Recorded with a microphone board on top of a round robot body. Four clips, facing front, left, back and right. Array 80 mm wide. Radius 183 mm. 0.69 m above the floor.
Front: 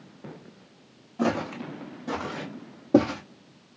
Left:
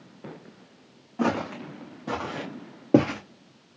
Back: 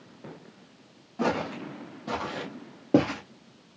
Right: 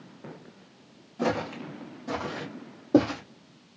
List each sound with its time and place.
1.2 s footsteps: 110° left, 3 m; by 3.2 s 105° left, 0.9 m